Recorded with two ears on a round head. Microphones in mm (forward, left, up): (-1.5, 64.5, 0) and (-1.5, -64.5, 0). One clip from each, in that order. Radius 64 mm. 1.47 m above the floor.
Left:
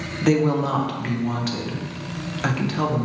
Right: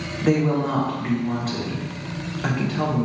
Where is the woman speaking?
70° left (ahead or behind), 1.0 m.